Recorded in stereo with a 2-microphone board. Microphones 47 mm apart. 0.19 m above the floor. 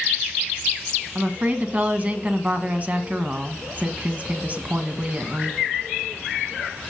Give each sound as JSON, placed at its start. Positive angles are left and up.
{"t": 1.1, "sound": "a woman speaking", "side_deg": -30, "distance_m": 1.5}